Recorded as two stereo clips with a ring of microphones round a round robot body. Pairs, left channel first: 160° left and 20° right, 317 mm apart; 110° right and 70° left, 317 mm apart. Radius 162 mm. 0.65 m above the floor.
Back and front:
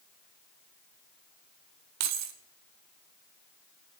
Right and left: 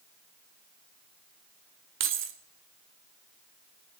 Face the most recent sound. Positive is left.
turn(degrees=15)